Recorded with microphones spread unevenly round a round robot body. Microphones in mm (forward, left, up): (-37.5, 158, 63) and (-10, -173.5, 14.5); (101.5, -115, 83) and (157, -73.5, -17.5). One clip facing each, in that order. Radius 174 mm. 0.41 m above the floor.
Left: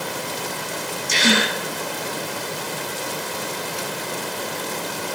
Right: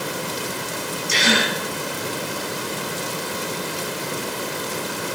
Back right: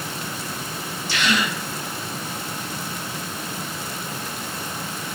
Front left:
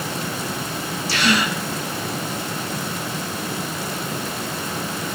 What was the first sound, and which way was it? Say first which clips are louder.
A gasp: left 2 dB, front left 3 dB; 35° left.